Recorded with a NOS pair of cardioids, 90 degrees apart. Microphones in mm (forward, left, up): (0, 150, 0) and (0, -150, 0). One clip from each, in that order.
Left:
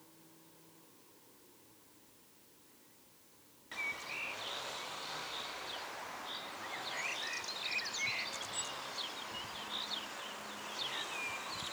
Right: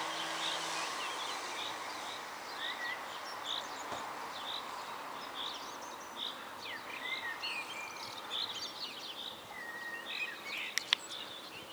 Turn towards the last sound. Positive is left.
No sound to turn to.